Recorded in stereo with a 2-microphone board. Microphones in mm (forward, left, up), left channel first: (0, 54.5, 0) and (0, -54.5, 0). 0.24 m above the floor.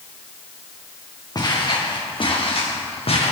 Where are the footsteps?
35° left (ahead or behind), 2.5 m; by 3.3 s 65° left (ahead or behind), 3 m.